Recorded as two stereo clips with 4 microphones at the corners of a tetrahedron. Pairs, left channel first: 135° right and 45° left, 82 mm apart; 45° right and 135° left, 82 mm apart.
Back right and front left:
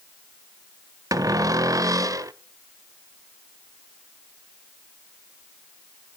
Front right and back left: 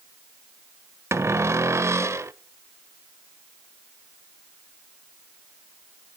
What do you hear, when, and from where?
1.1 s a cupboard door: 85° left, 0.5 m